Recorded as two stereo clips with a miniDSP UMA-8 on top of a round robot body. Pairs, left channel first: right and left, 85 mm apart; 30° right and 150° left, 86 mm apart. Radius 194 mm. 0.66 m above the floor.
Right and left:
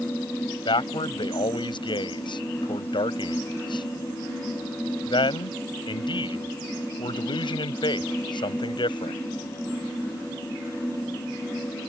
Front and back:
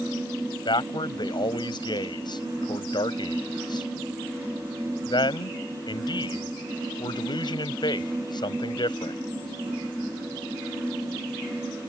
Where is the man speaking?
60° right.